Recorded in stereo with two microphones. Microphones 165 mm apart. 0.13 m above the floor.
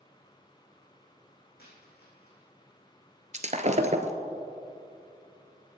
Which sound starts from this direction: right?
Breaking glass, at 3.3 s.